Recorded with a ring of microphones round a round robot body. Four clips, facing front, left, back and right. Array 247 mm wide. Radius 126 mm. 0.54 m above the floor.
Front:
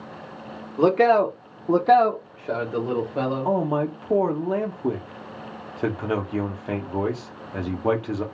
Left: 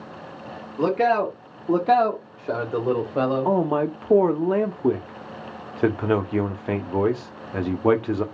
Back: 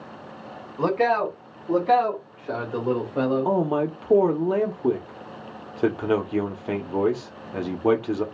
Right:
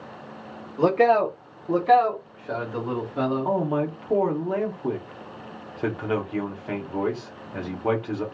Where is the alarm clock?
No alarm clock in this recording.